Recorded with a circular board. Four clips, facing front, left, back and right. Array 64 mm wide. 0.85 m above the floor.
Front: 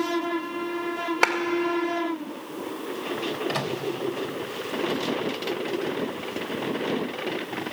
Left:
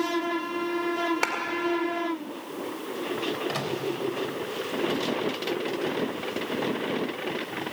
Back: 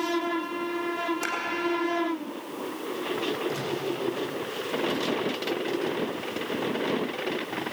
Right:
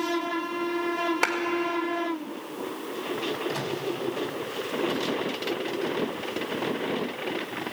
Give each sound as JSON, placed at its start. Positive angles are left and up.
{"t": 1.2, "sound": "a clap", "azimuth_deg": -5, "distance_m": 1.8}
{"t": 3.5, "sound": "a microwave", "azimuth_deg": 30, "distance_m": 3.0}